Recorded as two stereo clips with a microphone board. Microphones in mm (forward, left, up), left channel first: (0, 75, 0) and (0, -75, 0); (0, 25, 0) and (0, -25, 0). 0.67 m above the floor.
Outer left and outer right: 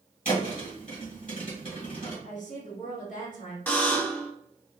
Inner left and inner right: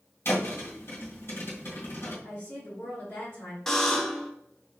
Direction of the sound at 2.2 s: 55° left (ahead or behind).